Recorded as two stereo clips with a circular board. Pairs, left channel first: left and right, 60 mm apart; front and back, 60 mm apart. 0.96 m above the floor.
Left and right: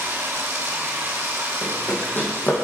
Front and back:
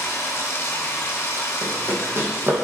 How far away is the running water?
About 1.0 m.